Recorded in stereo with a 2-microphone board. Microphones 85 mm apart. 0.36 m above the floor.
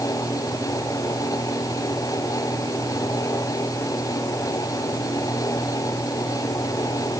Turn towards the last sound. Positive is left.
No sound to turn to.